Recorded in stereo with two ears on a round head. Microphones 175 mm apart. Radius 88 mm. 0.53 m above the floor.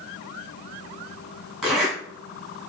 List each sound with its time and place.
1.6 s a zipper: 5° right (ahead or behind), 2 m